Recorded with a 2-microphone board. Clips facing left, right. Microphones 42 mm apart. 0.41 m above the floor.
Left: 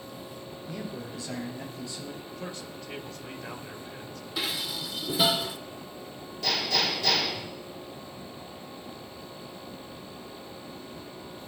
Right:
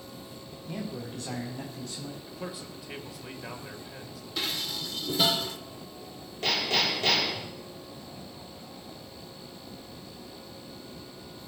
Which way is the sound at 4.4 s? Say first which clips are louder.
Left 1 dB; 5° left (ahead or behind).